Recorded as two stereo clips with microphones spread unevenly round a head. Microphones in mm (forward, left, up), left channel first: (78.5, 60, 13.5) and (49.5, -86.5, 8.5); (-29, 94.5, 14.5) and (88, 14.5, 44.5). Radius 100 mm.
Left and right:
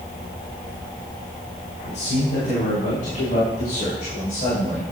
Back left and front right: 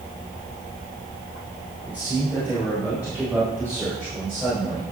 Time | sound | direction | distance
1.8 | a man speaking | 45° left | 5 m